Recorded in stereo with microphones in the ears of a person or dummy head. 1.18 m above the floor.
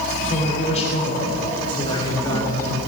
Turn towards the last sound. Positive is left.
turn(degrees=15)  # may be behind; listen again after turning